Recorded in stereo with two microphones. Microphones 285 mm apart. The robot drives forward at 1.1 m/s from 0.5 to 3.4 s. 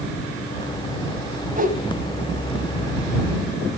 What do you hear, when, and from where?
1.6 s a whoosh: 30° right (ahead or behind), 1.3 m; by 1.8 s 25° right (ahead or behind), 1.3 m